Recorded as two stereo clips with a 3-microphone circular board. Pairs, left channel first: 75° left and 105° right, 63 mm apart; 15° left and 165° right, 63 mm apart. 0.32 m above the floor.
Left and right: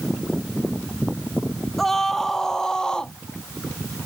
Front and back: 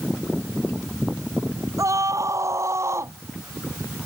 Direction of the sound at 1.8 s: 160° left.